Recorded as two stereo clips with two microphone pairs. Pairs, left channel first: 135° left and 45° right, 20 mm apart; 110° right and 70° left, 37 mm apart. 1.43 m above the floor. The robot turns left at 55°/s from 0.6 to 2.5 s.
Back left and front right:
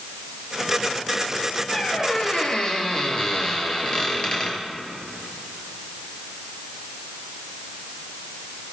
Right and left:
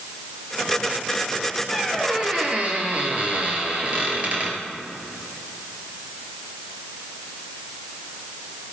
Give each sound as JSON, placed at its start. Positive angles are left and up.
{"t": 1.7, "sound": "a squeak", "azimuth_deg": 155, "distance_m": 1.9}